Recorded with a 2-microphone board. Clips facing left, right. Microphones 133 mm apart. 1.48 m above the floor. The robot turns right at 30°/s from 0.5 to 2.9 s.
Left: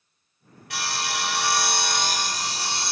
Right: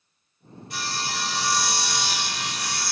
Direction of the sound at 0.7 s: 90° left.